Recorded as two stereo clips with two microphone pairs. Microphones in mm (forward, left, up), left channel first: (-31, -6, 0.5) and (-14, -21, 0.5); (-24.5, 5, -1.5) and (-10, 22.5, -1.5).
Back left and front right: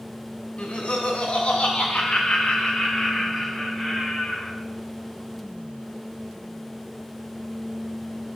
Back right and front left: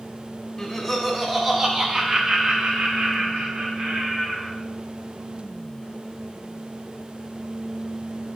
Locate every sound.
0.6 s laughter: 165° left, 1.4 m; by 4.5 s 75° left, 2.5 m